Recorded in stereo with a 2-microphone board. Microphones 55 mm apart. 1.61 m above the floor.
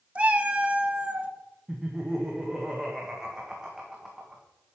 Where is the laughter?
10° right (ahead or behind), 1.5 m.